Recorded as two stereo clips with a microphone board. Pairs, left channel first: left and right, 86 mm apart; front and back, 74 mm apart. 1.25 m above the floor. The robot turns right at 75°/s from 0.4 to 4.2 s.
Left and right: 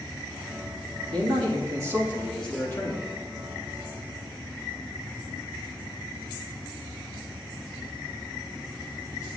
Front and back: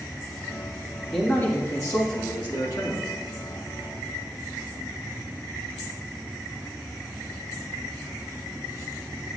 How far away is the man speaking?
About 2.5 m.